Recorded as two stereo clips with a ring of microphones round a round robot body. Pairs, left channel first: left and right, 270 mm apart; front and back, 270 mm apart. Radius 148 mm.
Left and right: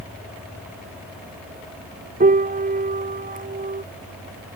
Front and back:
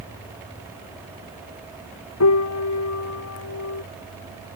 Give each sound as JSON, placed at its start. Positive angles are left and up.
{"t": 2.2, "sound": "a piano", "azimuth_deg": -30}